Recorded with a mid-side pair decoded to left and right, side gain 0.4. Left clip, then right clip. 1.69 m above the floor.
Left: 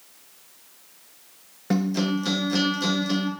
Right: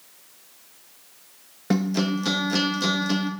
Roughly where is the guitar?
Ahead.